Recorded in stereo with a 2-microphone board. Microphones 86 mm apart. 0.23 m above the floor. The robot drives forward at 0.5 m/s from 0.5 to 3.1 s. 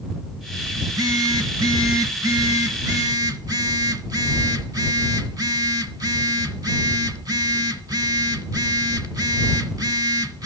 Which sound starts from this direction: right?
A phone buzzing, at 0.8 s.